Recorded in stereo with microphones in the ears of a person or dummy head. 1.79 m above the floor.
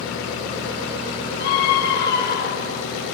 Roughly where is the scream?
Left.